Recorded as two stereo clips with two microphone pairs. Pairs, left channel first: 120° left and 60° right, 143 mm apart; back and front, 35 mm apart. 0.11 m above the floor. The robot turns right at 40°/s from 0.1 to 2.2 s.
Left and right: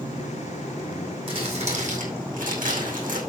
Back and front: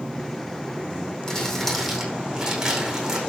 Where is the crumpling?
115° right, 5 m; by 3.2 s 75° right, 5 m.